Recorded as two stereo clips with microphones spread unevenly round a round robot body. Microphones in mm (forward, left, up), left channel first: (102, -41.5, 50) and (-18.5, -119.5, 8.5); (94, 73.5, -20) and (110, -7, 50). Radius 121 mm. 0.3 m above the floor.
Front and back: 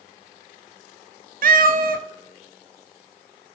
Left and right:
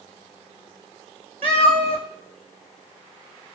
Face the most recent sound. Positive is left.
turn(degrees=-125)